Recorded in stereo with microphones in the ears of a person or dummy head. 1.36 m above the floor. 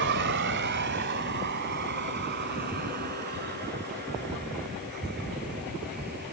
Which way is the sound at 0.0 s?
55° right (ahead or behind).